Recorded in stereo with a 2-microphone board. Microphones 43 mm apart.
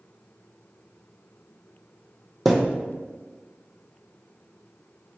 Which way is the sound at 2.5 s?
Centre (ahead or behind).